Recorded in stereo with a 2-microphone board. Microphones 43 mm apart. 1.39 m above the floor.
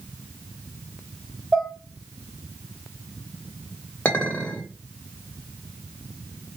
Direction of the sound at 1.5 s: 10° right (ahead or behind).